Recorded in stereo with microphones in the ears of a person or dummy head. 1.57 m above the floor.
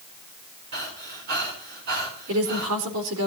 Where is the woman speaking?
85° right, 4 m.